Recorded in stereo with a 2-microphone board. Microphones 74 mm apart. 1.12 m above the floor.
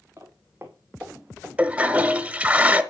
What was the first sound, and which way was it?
Footsteps, 30° right (ahead or behind).